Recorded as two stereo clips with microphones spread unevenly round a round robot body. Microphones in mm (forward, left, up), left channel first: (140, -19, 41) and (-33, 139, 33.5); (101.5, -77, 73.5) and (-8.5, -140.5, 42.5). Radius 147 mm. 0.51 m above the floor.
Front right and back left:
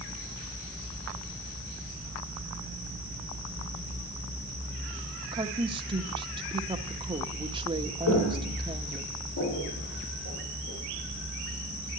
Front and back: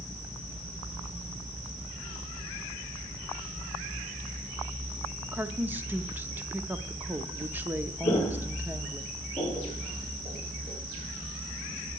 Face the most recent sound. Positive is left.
turn(degrees=-60)